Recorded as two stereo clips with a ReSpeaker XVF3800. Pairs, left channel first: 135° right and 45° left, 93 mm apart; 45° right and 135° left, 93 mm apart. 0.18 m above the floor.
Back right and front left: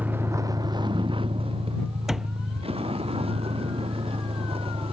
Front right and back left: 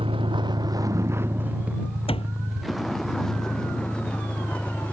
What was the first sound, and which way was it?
A vehicle, 115° left.